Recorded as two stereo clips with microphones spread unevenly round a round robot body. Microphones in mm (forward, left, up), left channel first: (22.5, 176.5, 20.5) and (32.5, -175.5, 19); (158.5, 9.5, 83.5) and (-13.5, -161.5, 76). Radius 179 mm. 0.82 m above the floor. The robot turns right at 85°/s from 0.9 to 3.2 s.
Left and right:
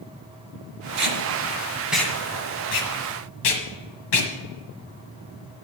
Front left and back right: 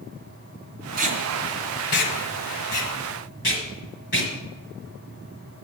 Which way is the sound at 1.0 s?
80° right.